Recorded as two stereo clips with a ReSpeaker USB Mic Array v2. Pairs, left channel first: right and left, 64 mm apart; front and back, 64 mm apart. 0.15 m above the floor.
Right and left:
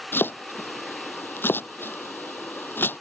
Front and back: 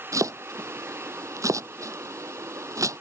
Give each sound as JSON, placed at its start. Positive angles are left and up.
{"t": 0.1, "sound": "chopping", "azimuth_deg": -145}